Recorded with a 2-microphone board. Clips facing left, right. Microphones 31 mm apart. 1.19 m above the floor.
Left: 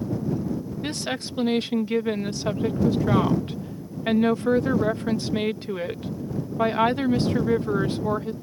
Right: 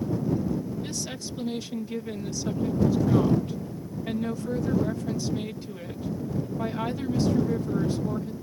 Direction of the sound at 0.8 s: 45° left (ahead or behind).